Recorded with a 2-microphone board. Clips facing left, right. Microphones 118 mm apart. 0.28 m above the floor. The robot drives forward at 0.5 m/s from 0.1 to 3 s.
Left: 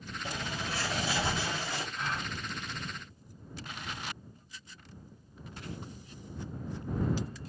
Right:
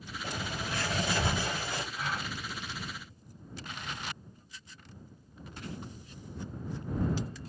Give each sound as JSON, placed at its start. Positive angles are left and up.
{"t": 0.2, "sound": "a bird", "side_deg": -55, "distance_m": 4.5}
{"t": 1.9, "sound": "a gasp", "side_deg": -5, "distance_m": 3.5}